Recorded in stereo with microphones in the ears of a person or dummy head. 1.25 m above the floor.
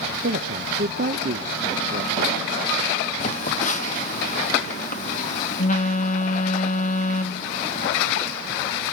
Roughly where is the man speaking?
Right.